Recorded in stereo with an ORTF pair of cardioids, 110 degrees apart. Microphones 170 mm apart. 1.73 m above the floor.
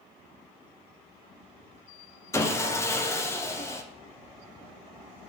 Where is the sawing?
15° left, 0.7 m.